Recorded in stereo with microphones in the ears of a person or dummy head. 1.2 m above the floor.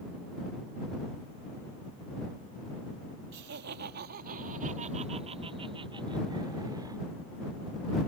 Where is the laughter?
65° right (ahead or behind); by 7.0 s 20° right (ahead or behind).